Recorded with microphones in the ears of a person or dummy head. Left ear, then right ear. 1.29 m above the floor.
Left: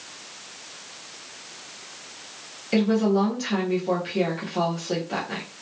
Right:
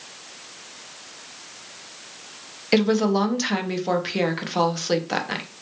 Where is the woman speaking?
50° right (ahead or behind), 0.6 m.